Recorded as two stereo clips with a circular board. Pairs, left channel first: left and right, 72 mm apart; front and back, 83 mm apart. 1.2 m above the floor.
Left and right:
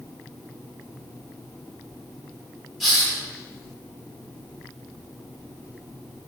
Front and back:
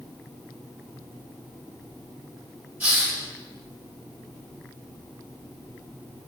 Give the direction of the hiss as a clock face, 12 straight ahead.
6 o'clock.